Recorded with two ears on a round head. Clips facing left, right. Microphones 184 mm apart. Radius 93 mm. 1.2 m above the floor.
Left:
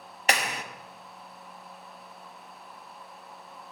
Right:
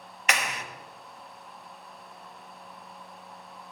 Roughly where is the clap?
Left.